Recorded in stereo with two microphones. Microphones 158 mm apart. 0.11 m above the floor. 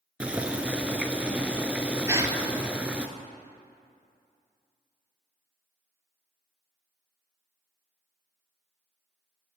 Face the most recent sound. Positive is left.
turn(degrees=-20)  # may be behind; listen again after turning